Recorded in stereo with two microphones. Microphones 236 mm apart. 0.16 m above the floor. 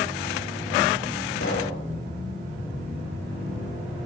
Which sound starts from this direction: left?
A pop, at 1.4 s.